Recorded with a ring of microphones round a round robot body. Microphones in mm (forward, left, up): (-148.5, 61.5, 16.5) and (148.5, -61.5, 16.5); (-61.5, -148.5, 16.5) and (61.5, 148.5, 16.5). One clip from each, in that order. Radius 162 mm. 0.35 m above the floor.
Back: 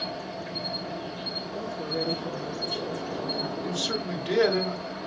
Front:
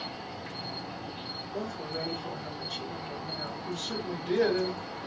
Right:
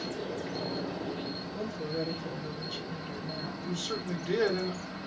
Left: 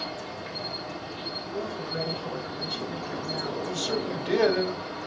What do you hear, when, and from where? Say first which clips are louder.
0.0 s an insect: back 5 dB, left 1 dB; 60° left, 2.5 m
1.5 s a woman speaking: back 3 dB, left 2 dB; 25° left, 4.5 m
3.6 s a man speaking: back 4 dB, left 4 dB; 115° left, 1.7 m